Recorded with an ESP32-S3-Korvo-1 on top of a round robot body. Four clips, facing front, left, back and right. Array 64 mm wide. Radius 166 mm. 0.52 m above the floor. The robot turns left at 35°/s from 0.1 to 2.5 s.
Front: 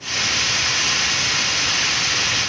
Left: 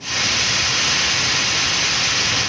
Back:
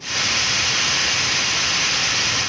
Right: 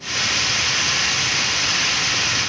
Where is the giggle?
I don't hear a giggle.